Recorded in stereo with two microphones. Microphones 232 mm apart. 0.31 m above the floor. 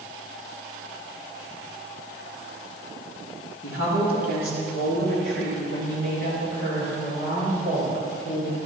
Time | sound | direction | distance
3.6 | a woman speaking | 65° left (ahead or behind) | 4 m